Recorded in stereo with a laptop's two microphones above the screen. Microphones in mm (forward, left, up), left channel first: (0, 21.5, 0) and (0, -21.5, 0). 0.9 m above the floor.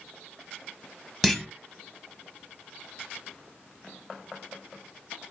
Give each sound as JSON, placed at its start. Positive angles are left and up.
{"t": 1.2, "sound": "a clunk", "side_deg": 5, "distance_m": 0.9}